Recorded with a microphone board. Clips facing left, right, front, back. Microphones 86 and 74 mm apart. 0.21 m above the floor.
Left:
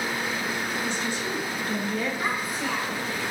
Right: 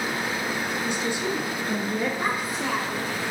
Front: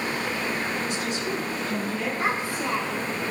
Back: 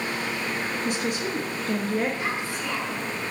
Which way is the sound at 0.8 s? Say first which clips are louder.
Right 2 dB, back 1 dB; 165° right.